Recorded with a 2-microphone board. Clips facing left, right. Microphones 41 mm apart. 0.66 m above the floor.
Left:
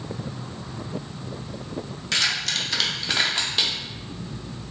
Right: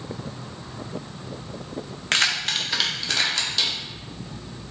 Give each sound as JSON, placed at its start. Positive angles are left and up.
{"t": 2.1, "sound": "keys jangling", "side_deg": -55, "distance_m": 0.6}